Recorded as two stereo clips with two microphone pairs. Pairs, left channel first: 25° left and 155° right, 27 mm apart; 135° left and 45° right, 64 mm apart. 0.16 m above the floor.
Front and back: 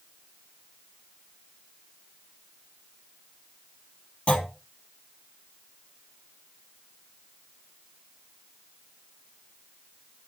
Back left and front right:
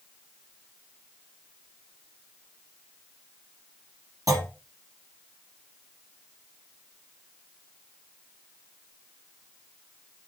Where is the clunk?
20° right, 4 m.